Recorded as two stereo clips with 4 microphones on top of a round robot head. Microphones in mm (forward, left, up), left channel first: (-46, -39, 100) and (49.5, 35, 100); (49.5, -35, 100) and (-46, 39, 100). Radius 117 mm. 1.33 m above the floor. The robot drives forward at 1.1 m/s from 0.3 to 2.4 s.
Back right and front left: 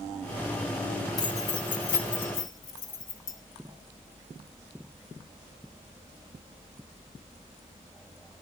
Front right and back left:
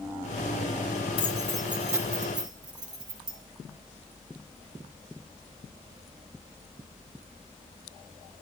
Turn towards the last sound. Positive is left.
turn(degrees=-160)